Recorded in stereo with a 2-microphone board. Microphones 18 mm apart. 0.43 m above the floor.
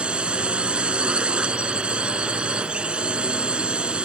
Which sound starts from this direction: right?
A drone, at 0.0 s.